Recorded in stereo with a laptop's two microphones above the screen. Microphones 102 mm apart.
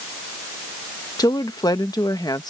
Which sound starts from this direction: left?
A woman speaking, at 1.2 s.